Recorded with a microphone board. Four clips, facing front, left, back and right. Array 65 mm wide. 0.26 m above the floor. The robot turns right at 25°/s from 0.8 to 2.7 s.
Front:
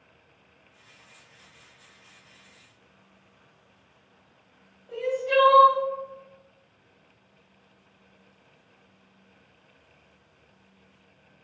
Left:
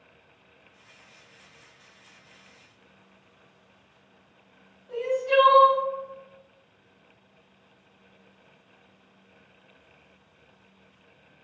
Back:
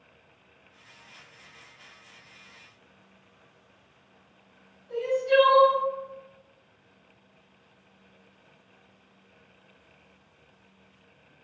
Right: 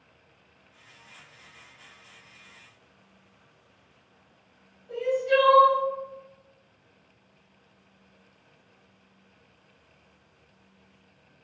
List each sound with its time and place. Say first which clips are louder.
4.9 s crying: even, back 1 dB; straight ahead, 1.1 m